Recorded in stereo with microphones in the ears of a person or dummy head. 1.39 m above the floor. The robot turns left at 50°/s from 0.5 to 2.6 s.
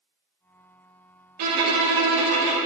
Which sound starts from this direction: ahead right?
A violin, at 1.4 s.